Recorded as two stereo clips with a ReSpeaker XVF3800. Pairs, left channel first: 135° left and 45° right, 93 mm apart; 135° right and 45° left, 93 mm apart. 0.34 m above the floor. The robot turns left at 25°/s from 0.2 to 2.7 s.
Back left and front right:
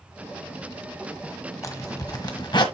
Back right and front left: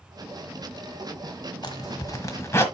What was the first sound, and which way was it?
A zipper, 170° right.